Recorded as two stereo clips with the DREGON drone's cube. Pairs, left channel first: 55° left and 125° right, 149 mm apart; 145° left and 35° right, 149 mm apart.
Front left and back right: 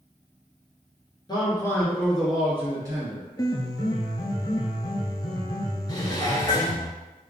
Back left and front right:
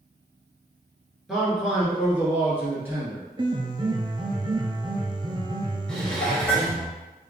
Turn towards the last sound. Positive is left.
turn(degrees=70)